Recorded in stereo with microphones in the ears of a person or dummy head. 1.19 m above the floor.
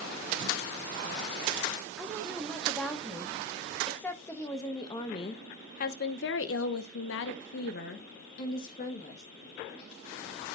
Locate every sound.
2.0 s a woman speaking: centre (ahead or behind), 3 m; by 9.2 s 40° left (ahead or behind), 2.0 m